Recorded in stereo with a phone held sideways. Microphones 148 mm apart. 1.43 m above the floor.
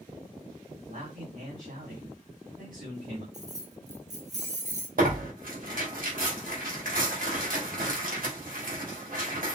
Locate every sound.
0.9 s a man speaking: 65° right (ahead or behind), 3 m
3.3 s keys jangling: 50° right (ahead or behind), 1.5 m
5.0 s tearing paper: 70° right (ahead or behind), 2.5 m